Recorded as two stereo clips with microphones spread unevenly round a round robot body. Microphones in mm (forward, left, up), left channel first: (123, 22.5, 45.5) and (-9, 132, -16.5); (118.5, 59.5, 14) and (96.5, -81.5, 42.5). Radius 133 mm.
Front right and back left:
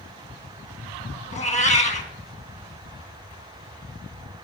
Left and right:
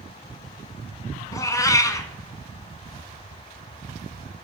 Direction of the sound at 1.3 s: 10° left.